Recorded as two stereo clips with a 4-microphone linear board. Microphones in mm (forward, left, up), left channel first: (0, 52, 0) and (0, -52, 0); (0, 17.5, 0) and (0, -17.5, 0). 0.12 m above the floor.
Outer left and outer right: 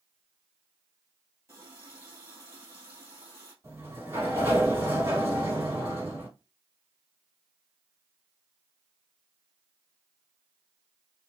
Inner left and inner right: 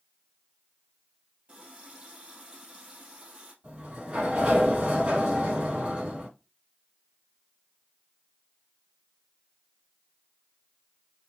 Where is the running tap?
30° right (ahead or behind), 2.5 m.